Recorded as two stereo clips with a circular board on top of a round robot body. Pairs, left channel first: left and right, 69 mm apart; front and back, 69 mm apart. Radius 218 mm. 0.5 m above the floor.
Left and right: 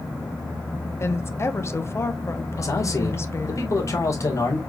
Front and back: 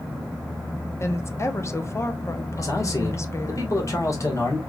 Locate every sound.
1.0 s a woman speaking: 45° left, 1.2 m
2.6 s a man speaking: 45° left, 2 m